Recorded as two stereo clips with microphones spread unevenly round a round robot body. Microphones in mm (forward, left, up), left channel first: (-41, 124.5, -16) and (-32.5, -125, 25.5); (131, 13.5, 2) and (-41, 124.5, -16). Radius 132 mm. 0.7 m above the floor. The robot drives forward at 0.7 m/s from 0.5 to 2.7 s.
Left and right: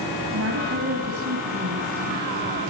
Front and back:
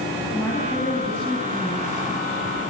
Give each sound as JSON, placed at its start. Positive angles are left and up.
{"t": 0.3, "sound": "a woman speaking", "azimuth_deg": -115, "distance_m": 5.0}